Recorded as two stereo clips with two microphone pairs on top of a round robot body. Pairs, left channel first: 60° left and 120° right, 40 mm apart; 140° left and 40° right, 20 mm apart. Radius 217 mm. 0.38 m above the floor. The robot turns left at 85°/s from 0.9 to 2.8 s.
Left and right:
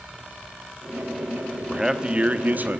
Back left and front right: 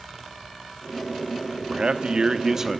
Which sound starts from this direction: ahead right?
A man speaking, at 1.7 s.